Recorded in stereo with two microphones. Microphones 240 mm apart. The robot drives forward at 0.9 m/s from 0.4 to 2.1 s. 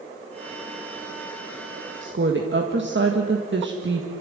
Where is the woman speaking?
55° right (ahead or behind), 1.8 m; by 4.1 s 50° right (ahead or behind), 1.9 m.